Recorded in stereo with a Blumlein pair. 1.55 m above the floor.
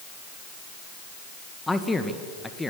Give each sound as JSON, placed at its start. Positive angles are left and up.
{"t": 1.7, "sound": "a man speaking", "azimuth_deg": 5, "distance_m": 1.8}